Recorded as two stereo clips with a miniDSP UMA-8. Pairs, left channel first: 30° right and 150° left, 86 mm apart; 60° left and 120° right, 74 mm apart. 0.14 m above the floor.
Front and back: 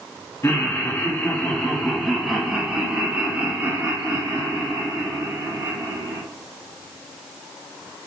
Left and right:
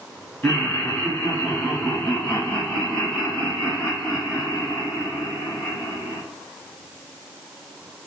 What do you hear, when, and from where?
0.4 s laughter: straight ahead, 1.8 m; by 6.2 s 150° left, 3 m